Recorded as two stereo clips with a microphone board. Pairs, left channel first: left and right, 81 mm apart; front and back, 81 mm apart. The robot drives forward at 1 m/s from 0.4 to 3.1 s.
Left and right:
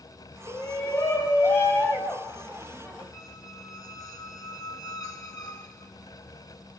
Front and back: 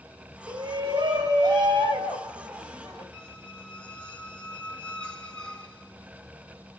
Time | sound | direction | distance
0.5 | a shout | 140° left | 5 m
3.1 | a squeak | 70° left | 1.3 m